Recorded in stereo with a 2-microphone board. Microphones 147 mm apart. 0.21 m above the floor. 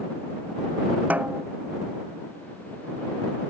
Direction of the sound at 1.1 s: 10° right (ahead or behind).